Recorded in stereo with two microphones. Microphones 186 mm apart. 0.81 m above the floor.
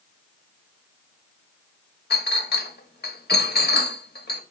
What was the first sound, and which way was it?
A clink, 60° left (ahead or behind).